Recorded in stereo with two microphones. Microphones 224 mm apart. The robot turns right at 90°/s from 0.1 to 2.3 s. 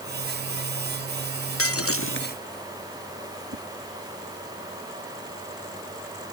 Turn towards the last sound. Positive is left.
turn(degrees=-75)  # may be behind; listen again after turning